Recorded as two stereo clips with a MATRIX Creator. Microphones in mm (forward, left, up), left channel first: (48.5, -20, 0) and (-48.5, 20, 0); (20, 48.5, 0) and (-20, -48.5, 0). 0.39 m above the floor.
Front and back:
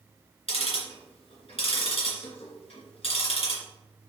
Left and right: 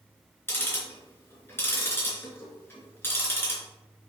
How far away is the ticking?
About 2.5 m.